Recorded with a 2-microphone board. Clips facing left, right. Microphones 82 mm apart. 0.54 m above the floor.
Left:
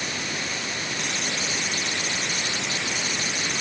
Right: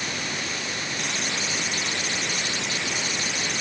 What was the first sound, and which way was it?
Only background noise.